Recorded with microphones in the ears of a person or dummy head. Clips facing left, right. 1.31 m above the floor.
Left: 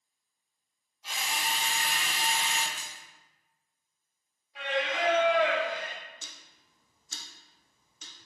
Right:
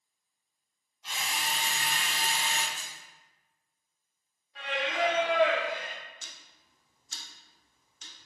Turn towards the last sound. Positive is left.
turn(degrees=70)  # may be behind; listen again after turning